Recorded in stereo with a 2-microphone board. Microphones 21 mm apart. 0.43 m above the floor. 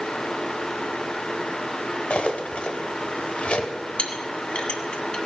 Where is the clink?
55° left (ahead or behind), 1.9 m.